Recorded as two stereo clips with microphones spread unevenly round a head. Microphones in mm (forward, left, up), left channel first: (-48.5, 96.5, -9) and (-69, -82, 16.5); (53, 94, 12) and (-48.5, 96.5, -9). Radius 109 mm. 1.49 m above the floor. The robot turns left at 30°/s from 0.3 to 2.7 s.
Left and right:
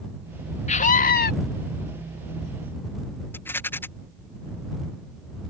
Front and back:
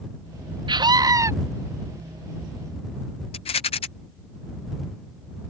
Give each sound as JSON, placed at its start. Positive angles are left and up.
{"t": 0.7, "sound": "a scream", "azimuth_deg": 135}
{"t": 3.3, "sound": "a rattle", "azimuth_deg": 0}